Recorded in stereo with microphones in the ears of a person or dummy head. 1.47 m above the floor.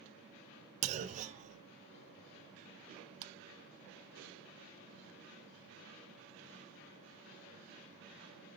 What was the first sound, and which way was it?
A clunk, 40° right (ahead or behind).